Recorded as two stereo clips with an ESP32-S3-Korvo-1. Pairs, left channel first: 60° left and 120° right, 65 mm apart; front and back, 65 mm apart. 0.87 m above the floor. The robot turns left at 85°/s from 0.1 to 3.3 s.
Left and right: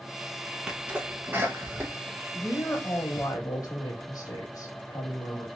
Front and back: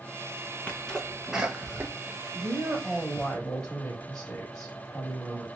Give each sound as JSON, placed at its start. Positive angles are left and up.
{"t": 0.7, "sound": "a sneeze", "azimuth_deg": -45, "distance_m": 0.6}
{"t": 2.3, "sound": "a woman speaking", "azimuth_deg": 150, "distance_m": 1.1}